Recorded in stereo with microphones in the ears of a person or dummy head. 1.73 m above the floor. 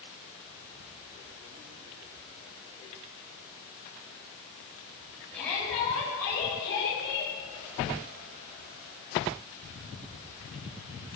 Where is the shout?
5° left (ahead or behind), 10 m; by 7.3 s 20° left (ahead or behind), 10 m.